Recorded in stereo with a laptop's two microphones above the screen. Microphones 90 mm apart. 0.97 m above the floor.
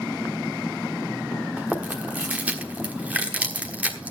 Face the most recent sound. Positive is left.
turn(degrees=-15)  # may be behind; listen again after turning